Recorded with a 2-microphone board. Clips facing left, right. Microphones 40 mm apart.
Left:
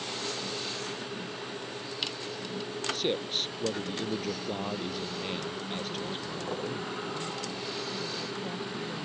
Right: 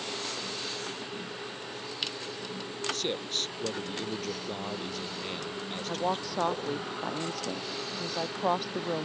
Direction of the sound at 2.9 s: 10° left (ahead or behind).